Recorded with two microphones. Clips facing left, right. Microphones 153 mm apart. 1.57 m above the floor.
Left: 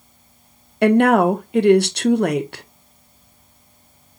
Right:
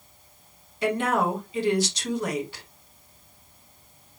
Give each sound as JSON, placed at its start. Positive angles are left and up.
{"t": 0.8, "sound": "a woman speaking", "side_deg": 65, "distance_m": 0.7}